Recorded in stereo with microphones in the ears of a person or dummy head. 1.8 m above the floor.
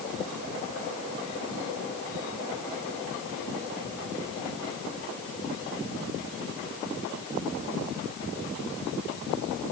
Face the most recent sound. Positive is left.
No sound to turn to.